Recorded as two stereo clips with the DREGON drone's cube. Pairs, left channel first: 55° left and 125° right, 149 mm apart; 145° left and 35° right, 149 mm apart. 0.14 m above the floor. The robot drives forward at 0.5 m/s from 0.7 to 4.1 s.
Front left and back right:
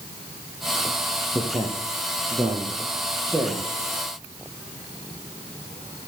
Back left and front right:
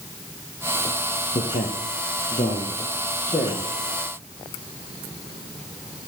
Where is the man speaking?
165° left, 2 m; by 3.8 s 170° left, 3.5 m.